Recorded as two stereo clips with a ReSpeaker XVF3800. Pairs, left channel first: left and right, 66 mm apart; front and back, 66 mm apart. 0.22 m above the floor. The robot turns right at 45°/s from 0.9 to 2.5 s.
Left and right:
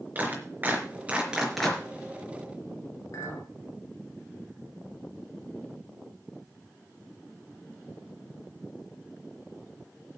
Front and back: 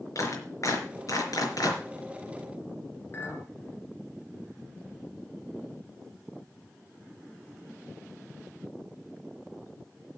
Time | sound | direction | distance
0.1 | a clap | 30° right | 4 m
3.1 | a clink | 55° left | 2.5 m